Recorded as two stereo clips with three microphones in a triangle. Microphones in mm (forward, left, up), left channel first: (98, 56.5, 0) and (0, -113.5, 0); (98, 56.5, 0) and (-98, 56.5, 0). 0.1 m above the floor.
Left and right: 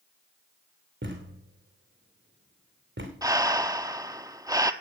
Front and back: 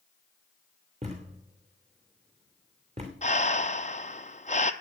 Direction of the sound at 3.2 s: 50° right.